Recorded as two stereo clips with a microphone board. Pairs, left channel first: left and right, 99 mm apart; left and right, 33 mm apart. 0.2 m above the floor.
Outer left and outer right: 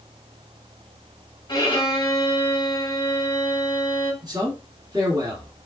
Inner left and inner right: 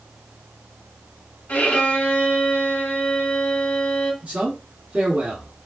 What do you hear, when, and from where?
1.5 s a violin: 40° left (ahead or behind), 1.0 m
4.2 s a man speaking: 40° right (ahead or behind), 1.9 m